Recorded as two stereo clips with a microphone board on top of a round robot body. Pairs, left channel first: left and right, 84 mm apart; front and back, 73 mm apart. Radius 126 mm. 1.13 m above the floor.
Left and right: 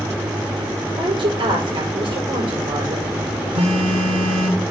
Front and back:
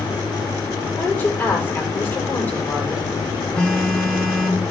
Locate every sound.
1.0 s a woman speaking: 70° right, 5.5 m
3.5 s a phone buzzing: 80° right, 1.5 m